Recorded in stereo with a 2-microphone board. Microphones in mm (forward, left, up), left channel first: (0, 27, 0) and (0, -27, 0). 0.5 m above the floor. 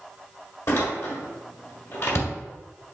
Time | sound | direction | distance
0.7 | a door slam | 55° left (ahead or behind) | 1.3 m